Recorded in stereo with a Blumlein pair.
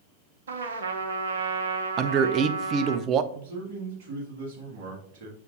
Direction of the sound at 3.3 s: 40° right.